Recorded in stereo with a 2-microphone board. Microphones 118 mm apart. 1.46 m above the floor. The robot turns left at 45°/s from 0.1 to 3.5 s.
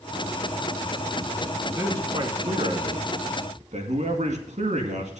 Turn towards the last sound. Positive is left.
turn(degrees=-75)  # may be behind; listen again after turning